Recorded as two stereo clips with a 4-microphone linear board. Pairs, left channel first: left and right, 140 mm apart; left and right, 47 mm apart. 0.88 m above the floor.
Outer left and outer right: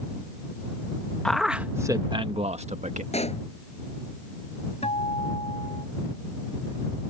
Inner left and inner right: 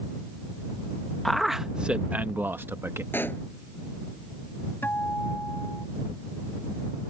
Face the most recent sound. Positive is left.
turn(degrees=50)  # may be behind; listen again after turning